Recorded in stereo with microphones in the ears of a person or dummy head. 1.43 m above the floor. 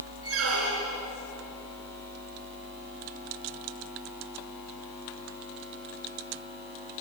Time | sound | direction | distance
0.2 | a squeak | 70° right (ahead or behind) | 3 m